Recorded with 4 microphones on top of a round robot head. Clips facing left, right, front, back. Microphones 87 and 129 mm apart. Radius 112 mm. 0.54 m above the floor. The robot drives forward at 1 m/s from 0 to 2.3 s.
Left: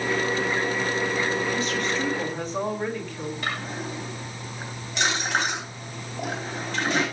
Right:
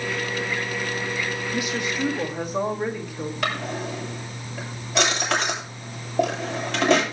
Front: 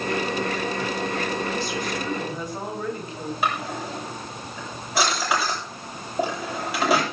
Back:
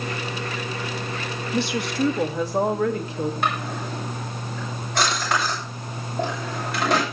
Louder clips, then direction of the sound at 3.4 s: Right 7 dB, even; 85° right.